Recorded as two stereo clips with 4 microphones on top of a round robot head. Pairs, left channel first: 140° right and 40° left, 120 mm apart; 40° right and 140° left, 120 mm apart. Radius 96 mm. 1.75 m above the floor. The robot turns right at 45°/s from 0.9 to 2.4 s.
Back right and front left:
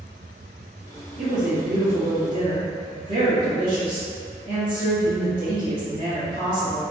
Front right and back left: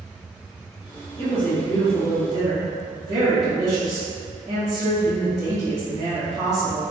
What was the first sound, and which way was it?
A woman speaking, 30° left.